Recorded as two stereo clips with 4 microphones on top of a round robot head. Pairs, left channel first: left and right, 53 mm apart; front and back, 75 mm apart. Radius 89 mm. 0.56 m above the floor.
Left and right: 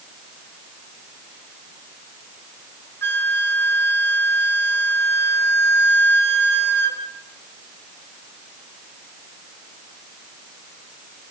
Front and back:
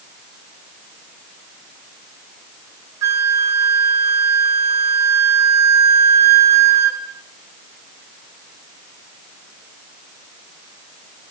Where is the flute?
135° left, 2 m.